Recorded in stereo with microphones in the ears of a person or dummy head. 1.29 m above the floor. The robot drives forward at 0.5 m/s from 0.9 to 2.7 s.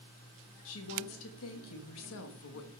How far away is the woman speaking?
About 1.5 m.